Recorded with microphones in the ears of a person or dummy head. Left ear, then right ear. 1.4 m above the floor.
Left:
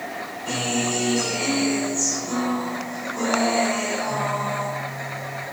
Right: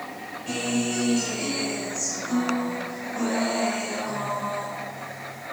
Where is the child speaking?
I don't hear a child speaking.